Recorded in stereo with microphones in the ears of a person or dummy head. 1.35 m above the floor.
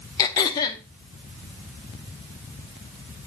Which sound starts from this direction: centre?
Throat clearing, at 0.2 s.